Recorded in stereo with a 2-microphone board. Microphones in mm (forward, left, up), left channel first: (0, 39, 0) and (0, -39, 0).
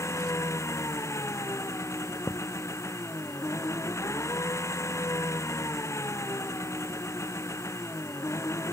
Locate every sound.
0.0 s an engine running: 40° left (ahead or behind)
2.3 s a thud: 25° left (ahead or behind)